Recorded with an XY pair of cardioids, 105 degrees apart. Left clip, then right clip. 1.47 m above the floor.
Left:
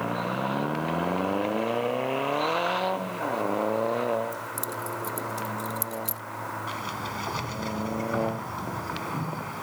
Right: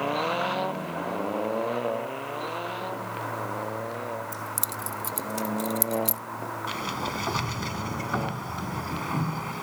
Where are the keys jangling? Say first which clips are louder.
Even; 45° right; by 6.2 s 35° right.